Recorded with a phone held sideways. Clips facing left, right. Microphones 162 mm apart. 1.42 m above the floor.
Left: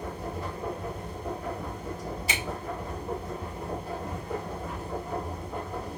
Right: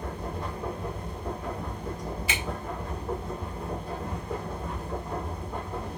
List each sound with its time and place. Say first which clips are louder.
0.0 s a machine running: even; 5° left (ahead or behind), 1.7 m
2.3 s a finger snap: left 2 dB; 40° left (ahead or behind), 1.7 m